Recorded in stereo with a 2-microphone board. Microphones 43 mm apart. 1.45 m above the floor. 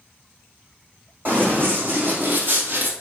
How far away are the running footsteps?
About 4 m.